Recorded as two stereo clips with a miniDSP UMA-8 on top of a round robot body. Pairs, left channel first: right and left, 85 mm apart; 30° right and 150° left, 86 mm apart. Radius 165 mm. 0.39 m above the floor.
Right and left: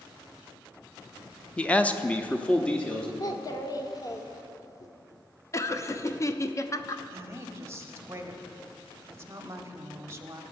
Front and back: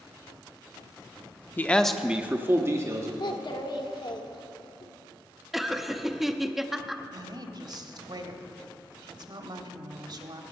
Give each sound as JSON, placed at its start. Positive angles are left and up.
{"t": 1.6, "sound": "a man speaking", "azimuth_deg": -35, "distance_m": 0.8}
{"t": 3.2, "sound": "a child speaking", "azimuth_deg": -50, "distance_m": 1.2}
{"t": 5.5, "sound": "laughter", "azimuth_deg": -125, "distance_m": 0.9}
{"t": 7.1, "sound": "a woman speaking", "azimuth_deg": 145, "distance_m": 1.3}